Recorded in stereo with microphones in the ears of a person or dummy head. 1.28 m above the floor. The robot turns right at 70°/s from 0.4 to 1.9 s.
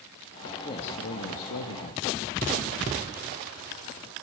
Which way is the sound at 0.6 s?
25° left.